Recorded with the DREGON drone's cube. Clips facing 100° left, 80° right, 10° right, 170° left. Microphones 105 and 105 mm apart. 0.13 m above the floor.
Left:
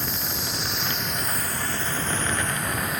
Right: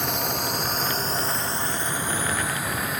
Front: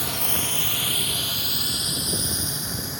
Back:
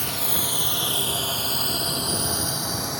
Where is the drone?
100° right; by 3.0 s 170° right.